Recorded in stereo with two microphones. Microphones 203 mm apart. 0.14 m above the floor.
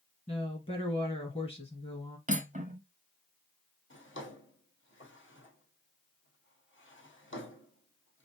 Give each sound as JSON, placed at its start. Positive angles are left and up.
{"t": 0.3, "sound": "a woman speaking", "side_deg": 30, "distance_m": 2.0}
{"t": 2.3, "sound": "cutlery clinking", "side_deg": -35, "distance_m": 0.8}
{"t": 3.9, "sound": "a drawer", "side_deg": 75, "distance_m": 1.8}